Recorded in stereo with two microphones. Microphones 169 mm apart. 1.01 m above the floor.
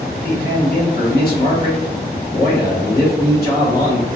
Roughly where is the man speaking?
Left.